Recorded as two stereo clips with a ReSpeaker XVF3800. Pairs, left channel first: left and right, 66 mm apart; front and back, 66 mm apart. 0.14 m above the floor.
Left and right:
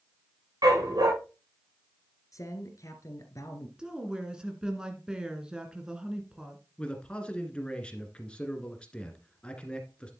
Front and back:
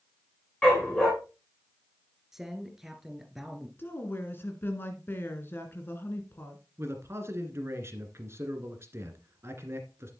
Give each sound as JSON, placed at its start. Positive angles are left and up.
{"t": 0.6, "sound": "a dog barking", "azimuth_deg": -80, "distance_m": 5.0}
{"t": 2.3, "sound": "a man speaking", "azimuth_deg": 95, "distance_m": 1.9}
{"t": 3.8, "sound": "a woman speaking", "azimuth_deg": -20, "distance_m": 2.0}
{"t": 6.8, "sound": "a man speaking", "azimuth_deg": 160, "distance_m": 1.7}